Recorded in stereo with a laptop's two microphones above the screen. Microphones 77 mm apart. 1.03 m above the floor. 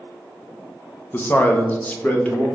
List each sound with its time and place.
1.1 s a man speaking: 25° left (ahead or behind), 0.5 m; by 2.5 s 20° left (ahead or behind), 1.1 m